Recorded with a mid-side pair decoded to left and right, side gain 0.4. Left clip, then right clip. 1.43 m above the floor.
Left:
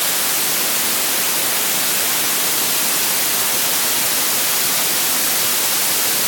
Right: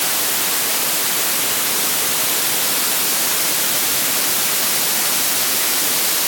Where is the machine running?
I don't hear a machine running.